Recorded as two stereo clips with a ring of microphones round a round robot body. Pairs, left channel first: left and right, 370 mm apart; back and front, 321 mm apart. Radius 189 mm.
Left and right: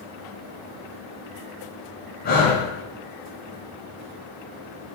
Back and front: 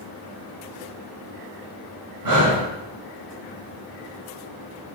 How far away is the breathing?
About 4.5 m.